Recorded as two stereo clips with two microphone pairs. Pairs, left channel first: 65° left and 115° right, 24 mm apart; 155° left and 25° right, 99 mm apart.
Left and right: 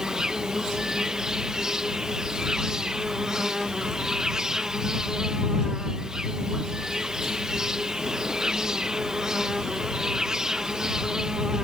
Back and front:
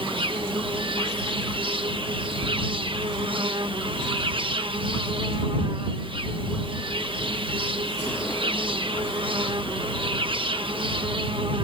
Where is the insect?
55° right.